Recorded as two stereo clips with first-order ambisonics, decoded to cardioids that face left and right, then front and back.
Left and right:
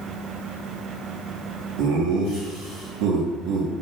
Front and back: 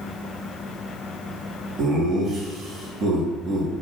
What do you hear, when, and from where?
1.8 s laughter: 120° right, 1.5 m